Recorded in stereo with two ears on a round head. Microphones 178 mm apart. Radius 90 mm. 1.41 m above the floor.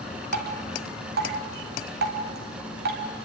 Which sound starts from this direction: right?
Dripping, at 0.3 s.